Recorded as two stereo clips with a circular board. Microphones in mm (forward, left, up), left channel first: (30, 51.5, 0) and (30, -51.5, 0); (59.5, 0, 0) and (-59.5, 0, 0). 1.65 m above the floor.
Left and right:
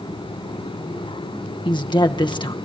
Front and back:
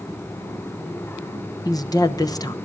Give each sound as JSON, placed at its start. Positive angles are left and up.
{"t": 1.6, "sound": "a woman speaking", "azimuth_deg": 55, "distance_m": 1.0}